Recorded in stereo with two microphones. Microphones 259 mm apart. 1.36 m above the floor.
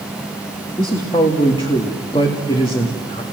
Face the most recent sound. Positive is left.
turn(degrees=20)  # may be behind; listen again after turning